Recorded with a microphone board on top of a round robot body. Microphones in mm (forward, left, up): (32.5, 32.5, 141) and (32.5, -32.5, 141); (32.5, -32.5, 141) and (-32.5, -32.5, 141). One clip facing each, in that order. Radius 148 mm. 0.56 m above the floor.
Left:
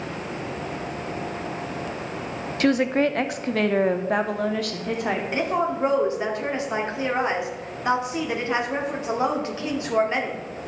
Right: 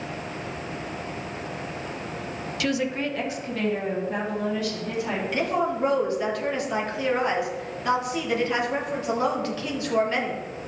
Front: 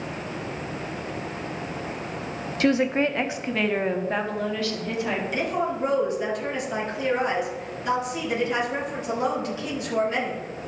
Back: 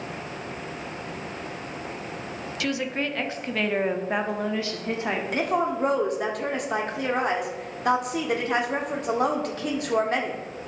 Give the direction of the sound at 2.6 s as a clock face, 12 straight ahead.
10 o'clock.